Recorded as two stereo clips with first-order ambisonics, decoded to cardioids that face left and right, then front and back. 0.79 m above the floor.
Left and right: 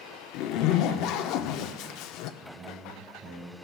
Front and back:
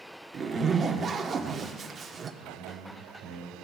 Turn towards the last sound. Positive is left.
turn(degrees=-135)